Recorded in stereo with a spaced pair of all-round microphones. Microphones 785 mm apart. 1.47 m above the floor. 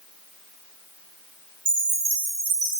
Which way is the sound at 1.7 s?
75° right (ahead or behind).